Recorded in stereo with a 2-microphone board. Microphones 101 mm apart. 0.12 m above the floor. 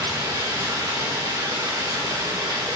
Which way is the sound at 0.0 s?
30° right (ahead or behind).